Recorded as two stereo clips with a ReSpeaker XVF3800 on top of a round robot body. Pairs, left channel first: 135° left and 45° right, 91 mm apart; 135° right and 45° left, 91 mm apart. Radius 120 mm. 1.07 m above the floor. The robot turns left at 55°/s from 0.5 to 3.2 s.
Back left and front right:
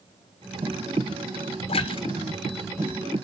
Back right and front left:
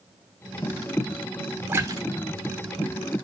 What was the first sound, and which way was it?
A splash, 115° left.